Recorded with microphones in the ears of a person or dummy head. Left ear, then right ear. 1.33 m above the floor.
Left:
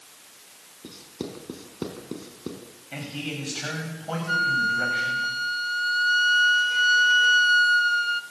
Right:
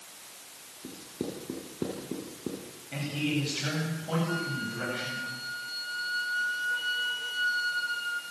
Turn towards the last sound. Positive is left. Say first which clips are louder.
# left 11 dB
turn(degrees=70)  # may be behind; listen again after turning